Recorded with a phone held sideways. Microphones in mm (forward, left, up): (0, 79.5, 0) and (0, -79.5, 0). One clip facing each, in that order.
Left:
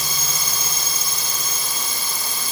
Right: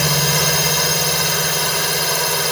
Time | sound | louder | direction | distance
0.0 | a drone | right 13 dB | 75° right (ahead or behind) | ?